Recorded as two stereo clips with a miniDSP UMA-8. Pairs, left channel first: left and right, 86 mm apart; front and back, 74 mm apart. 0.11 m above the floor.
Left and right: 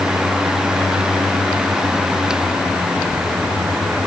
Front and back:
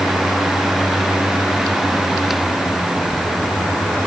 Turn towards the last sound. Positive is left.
No sound to turn to.